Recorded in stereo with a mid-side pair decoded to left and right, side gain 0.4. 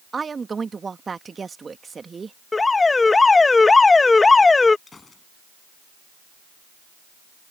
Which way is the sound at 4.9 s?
35° left.